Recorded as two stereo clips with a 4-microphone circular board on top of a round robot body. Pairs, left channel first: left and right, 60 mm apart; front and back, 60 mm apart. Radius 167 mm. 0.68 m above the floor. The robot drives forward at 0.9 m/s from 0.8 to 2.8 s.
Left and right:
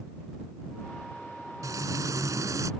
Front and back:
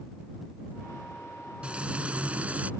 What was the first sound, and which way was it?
Frying, 110° right.